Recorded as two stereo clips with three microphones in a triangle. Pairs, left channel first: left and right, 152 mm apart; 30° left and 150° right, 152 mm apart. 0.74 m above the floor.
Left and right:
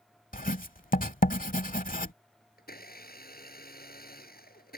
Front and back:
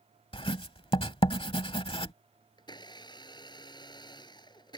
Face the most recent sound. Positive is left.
turn(degrees=90)